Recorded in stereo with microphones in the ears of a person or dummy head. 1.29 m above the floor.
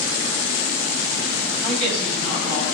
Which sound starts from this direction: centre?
A woman speaking, at 1.6 s.